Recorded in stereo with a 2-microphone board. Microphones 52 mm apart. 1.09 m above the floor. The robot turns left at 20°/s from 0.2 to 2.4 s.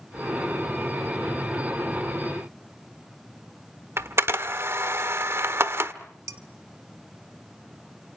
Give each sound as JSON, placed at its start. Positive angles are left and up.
{"t": 4.0, "sound": "a camera shutter", "side_deg": -50, "distance_m": 1.0}
{"t": 6.3, "sound": "dishes clattering", "side_deg": -70, "distance_m": 1.6}